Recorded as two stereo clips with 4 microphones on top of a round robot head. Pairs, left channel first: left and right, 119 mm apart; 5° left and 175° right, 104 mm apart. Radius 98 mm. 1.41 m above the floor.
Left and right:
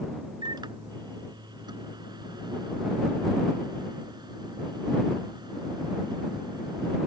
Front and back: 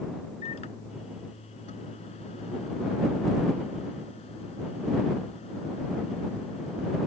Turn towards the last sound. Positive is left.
turn(degrees=-35)